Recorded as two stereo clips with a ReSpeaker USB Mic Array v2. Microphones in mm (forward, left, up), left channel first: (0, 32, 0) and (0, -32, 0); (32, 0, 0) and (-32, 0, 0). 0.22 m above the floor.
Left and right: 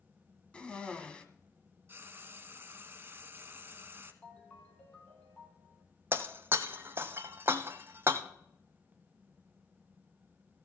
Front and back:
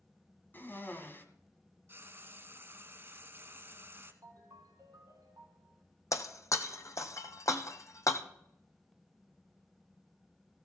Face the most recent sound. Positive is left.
turn(degrees=-35)